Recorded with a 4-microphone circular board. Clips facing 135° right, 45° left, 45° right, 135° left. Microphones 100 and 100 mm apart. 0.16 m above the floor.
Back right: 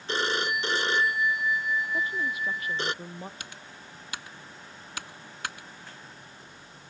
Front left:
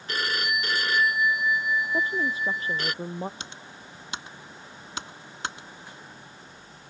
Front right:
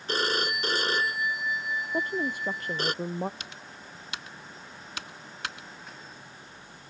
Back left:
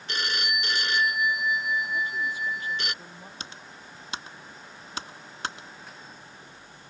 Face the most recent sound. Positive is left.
turn(degrees=95)